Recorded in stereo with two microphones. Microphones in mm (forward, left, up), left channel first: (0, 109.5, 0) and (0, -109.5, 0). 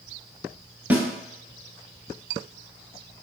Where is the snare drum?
5° right (ahead or behind), 0.7 m.